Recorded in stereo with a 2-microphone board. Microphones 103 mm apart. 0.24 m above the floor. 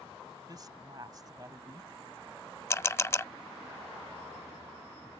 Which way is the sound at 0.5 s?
35° right (ahead or behind).